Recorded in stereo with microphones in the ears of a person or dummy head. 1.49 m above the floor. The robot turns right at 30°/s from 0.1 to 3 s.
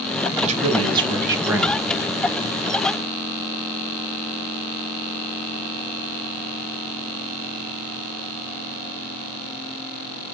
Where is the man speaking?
45° right, 0.8 m; by 2.3 s 15° left, 0.8 m.